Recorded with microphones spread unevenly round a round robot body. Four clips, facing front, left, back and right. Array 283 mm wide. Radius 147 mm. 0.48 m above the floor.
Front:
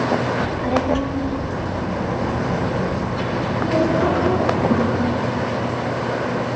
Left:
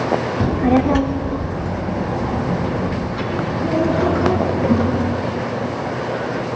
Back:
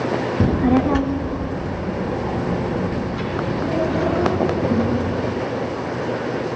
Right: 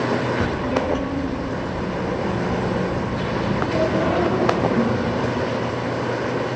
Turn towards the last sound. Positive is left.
turn(degrees=75)